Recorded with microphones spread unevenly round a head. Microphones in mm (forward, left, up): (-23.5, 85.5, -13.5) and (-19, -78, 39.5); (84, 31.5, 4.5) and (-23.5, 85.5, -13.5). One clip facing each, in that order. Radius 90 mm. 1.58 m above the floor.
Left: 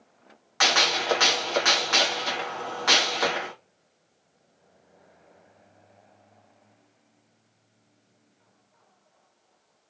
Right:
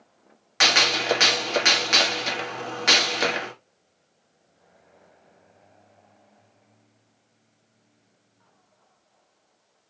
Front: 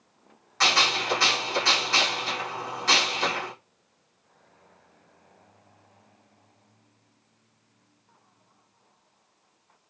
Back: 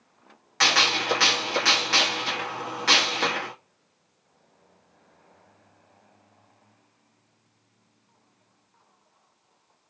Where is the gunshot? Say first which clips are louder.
Right 1 dB, even; 150° right, 0.9 m.